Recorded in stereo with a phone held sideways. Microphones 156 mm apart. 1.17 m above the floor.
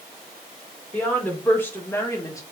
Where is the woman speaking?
10° left (ahead or behind), 1.9 m; by 2.4 s 20° left (ahead or behind), 1.0 m.